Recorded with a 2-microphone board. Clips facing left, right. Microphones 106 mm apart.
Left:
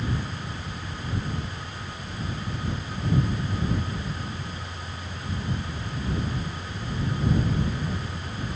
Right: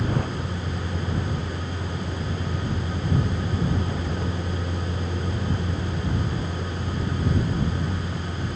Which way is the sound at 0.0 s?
60° right (ahead or behind).